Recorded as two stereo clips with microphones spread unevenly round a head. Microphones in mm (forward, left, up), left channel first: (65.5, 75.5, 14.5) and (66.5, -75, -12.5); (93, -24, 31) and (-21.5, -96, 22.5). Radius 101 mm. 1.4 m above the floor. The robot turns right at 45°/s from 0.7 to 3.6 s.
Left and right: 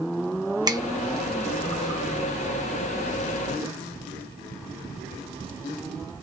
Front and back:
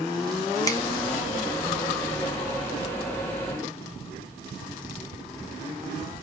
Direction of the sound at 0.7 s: 25° right.